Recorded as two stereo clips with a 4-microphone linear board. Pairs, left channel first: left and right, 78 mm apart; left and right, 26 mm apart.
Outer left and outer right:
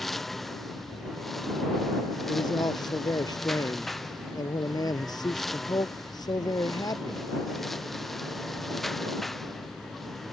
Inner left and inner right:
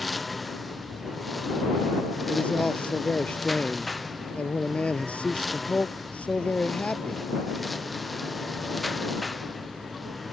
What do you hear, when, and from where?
0.0 s a lawn mower: centre (ahead or behind)
2.3 s a man speaking: 60° left (ahead or behind)